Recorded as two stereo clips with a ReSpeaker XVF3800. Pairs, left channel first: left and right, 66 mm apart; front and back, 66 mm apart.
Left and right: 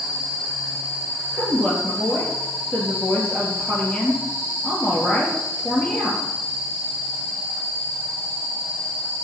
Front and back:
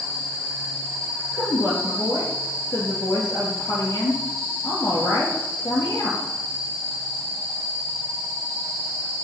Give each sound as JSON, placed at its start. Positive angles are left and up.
{"t": 1.3, "sound": "a woman speaking", "azimuth_deg": 20, "distance_m": 3.5}